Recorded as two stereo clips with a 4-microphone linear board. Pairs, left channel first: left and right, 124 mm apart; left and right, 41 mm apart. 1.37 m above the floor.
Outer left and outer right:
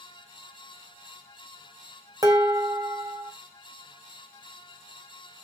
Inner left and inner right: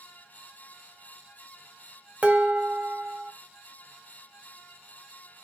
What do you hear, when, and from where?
2.2 s dishes clattering: 30° right (ahead or behind), 0.6 m